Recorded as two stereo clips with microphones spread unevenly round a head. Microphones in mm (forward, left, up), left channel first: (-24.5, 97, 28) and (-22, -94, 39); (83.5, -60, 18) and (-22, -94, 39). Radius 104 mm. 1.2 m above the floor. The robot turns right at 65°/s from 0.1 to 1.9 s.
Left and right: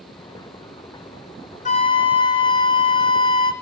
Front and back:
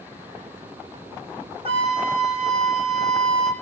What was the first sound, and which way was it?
A flute, 140° left.